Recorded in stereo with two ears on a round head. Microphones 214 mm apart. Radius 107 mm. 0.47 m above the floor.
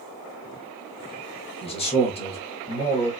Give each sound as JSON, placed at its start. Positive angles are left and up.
{"t": 1.6, "sound": "a man speaking", "side_deg": 25, "distance_m": 1.0}